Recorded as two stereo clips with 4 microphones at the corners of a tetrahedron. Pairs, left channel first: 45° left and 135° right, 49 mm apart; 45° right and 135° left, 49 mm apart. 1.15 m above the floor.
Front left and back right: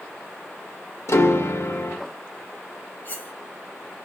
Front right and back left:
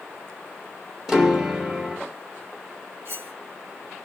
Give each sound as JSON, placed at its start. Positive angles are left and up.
{"t": 1.1, "sound": "a piano", "azimuth_deg": 55, "distance_m": 1.2}
{"t": 3.0, "sound": "cutlery clinking", "azimuth_deg": 100, "distance_m": 1.7}